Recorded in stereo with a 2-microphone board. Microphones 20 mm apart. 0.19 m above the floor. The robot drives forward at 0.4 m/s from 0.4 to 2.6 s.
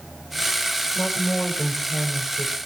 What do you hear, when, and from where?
0.9 s a woman speaking: 10° left (ahead or behind), 3.5 m